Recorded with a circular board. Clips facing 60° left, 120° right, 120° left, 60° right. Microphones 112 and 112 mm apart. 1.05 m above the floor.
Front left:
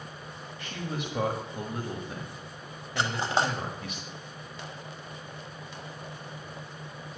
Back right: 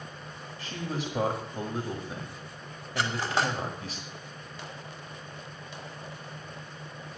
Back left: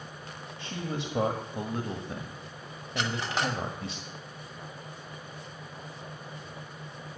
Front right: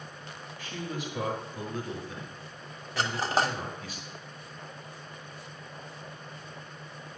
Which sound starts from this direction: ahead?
Cutlery clinking, at 3.0 s.